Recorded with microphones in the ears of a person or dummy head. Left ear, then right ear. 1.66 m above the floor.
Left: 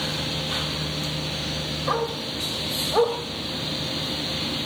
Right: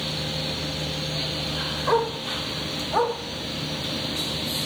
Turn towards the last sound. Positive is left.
turn(degrees=-25)  # may be behind; listen again after turning